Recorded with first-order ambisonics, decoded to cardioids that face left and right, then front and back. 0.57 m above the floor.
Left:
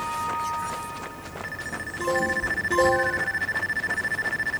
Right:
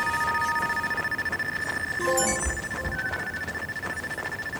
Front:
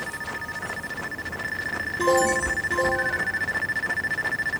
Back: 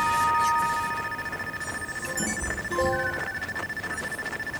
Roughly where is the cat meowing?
Behind.